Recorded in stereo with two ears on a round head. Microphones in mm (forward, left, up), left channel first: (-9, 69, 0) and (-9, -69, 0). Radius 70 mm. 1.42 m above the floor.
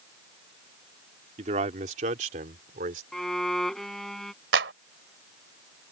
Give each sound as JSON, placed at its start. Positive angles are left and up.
{"t": 1.4, "sound": "a man speaking", "side_deg": -45}
{"t": 3.1, "sound": "a violin", "side_deg": 0}
{"t": 4.5, "sound": "a clap", "side_deg": -80}